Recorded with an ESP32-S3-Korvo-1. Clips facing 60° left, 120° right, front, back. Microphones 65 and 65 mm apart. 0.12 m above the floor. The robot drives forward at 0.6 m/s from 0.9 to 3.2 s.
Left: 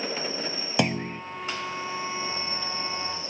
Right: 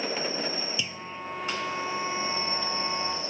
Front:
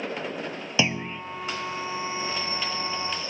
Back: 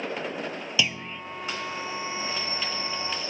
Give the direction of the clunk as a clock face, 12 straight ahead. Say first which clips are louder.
Left 10 dB, front 4 dB; 10 o'clock.